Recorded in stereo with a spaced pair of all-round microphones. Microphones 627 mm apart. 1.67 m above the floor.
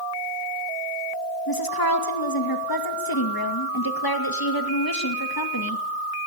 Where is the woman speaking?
35° left (ahead or behind), 2 m.